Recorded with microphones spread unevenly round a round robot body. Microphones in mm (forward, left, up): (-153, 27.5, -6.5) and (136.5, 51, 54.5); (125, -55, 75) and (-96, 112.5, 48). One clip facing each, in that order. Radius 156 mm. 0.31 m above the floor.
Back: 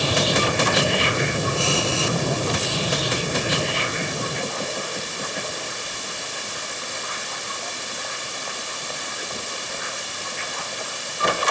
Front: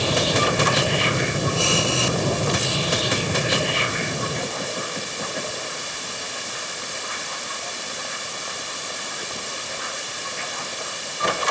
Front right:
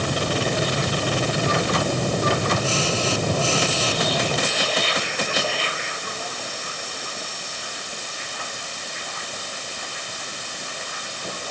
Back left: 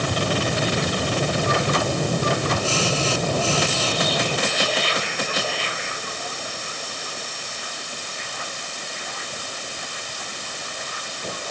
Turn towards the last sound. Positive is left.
No sound to turn to.